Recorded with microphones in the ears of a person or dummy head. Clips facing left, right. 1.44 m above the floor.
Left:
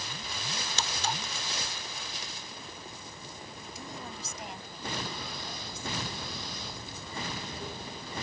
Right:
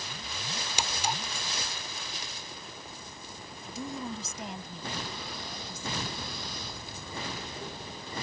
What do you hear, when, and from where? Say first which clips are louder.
0.8 s a clink: right 2 dB; 10° right (ahead or behind)
3.7 s a woman speaking: right 8 dB; 75° right (ahead or behind)